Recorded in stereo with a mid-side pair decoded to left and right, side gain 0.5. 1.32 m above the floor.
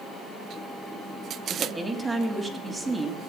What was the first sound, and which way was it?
A woman speaking, 20° right.